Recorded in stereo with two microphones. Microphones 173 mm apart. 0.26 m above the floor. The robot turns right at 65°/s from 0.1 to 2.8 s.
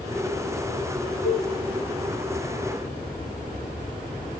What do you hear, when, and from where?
1.2 s a cowbell: 65° left (ahead or behind), 9.5 m; by 1.5 s 75° left (ahead or behind), 9.5 m